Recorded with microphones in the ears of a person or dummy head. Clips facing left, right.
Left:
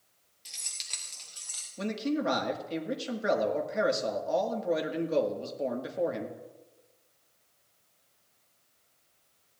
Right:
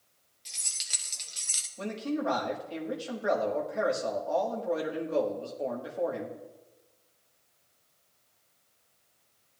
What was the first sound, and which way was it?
Keys jangling, 5° left (ahead or behind).